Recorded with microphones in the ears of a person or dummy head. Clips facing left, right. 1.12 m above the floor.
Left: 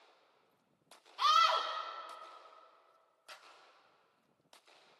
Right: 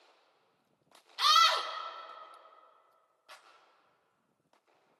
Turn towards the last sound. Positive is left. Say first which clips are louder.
# even
turn(degrees=20)  # may be behind; listen again after turning